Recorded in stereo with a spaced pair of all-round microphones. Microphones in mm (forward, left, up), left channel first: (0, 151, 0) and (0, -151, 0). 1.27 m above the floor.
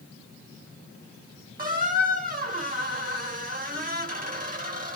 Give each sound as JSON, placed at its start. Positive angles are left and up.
{"t": 1.6, "sound": "a squeak", "side_deg": -30, "distance_m": 0.9}